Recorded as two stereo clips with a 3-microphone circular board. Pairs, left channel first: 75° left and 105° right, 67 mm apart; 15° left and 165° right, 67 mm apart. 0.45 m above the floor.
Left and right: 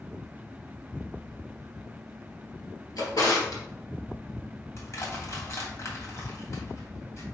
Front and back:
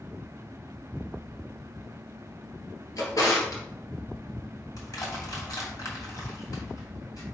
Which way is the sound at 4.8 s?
40° left.